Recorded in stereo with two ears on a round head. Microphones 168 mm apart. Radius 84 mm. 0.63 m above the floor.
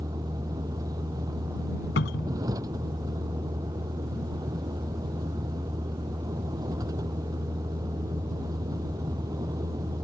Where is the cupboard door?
65° left (ahead or behind).